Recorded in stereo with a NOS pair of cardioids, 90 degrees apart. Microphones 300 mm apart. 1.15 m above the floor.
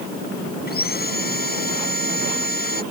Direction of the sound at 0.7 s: 30° left.